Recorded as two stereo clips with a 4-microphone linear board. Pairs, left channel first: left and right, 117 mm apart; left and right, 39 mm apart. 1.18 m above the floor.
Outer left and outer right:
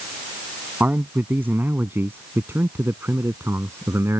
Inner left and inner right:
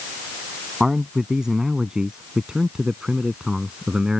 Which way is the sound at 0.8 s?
15° right (ahead or behind).